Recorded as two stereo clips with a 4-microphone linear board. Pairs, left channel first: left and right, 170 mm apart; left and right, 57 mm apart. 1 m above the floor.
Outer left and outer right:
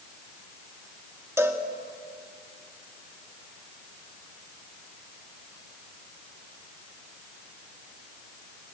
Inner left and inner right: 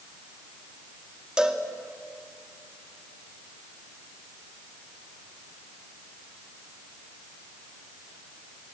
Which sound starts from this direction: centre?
A cowbell, at 1.4 s.